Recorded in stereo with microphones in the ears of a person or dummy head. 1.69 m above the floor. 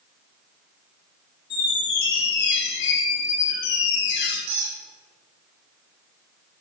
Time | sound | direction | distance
1.5 | a squeak | 55° left (ahead or behind) | 1.2 m
4.5 | a squeak | 65° right (ahead or behind) | 2 m